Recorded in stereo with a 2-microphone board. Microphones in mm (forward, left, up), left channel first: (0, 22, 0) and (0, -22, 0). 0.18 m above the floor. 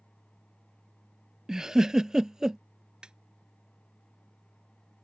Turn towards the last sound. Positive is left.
turn(degrees=-20)  # may be behind; listen again after turning